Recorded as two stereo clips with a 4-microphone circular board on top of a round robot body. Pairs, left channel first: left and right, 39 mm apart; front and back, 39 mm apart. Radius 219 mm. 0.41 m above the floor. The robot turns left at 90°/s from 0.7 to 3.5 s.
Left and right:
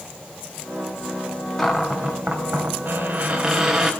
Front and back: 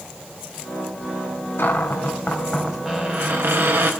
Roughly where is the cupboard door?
Ahead.